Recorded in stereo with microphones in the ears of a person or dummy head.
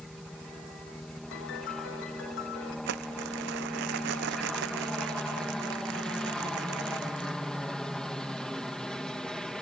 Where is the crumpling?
60° right (ahead or behind).